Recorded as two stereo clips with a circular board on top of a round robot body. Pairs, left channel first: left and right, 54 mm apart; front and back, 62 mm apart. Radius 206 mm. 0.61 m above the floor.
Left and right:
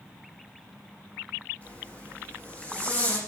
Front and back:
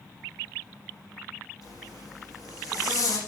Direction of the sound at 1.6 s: 25° left.